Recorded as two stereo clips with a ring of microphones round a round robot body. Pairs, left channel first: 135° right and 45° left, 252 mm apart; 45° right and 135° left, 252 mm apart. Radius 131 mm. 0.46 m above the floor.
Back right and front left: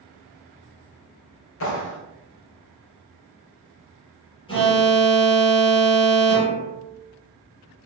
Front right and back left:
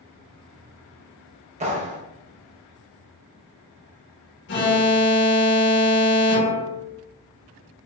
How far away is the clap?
About 2 m.